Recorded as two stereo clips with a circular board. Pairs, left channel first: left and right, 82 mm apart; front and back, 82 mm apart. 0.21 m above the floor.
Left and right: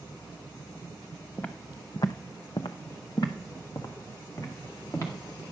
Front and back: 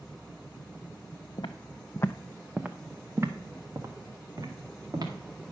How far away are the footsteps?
About 0.9 m.